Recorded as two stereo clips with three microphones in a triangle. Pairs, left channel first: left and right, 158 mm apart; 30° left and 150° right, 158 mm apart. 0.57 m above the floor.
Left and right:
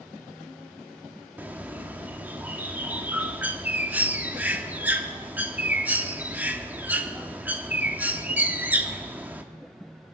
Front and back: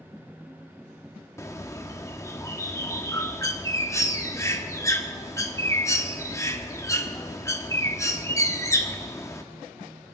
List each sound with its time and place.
1.4 s a bird: 20° right, 0.9 m